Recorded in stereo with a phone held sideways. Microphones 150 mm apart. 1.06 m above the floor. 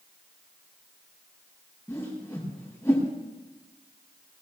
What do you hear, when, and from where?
1.9 s a whoosh: 20° left (ahead or behind), 7.5 m